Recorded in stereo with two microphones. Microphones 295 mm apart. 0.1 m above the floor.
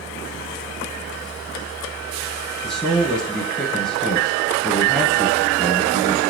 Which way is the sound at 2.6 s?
Centre (ahead or behind).